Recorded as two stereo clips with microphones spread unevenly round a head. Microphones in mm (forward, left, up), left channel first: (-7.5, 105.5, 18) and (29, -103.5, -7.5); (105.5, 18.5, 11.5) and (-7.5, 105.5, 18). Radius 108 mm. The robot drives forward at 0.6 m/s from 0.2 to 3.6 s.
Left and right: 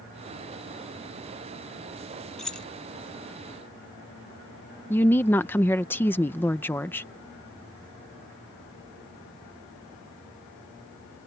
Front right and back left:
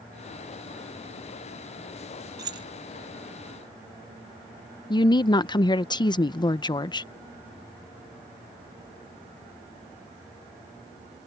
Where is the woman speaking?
20° left.